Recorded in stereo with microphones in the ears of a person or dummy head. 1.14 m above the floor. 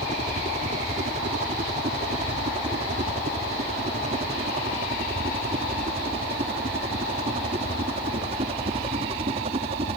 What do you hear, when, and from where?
0.0 s a helicopter: 40° right (ahead or behind); by 10.0 s 35° right (ahead or behind)